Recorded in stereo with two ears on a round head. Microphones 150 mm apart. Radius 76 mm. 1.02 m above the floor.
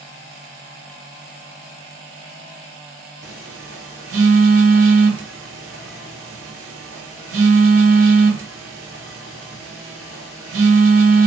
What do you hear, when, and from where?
3.2 s a phone buzzing: 80° right, 1.1 m